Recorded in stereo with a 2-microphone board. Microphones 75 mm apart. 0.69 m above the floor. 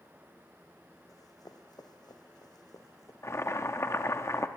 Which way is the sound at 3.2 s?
40° left (ahead or behind).